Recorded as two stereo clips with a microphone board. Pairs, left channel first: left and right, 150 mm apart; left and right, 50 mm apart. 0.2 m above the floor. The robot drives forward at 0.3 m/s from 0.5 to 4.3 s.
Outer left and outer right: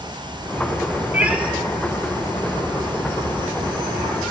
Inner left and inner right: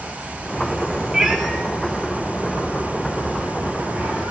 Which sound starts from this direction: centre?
A cat meowing, at 1.1 s.